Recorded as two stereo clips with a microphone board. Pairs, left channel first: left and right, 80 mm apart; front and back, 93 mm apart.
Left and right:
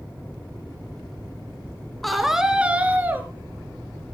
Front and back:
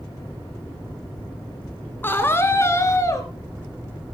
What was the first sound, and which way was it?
A scream, 5° left.